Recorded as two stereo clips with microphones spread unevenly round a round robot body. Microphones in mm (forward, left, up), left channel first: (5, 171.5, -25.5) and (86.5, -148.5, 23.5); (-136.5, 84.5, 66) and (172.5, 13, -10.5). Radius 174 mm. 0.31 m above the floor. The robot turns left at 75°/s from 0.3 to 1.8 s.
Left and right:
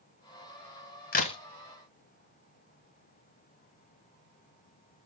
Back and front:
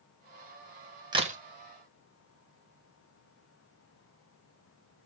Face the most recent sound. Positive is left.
turn(degrees=0)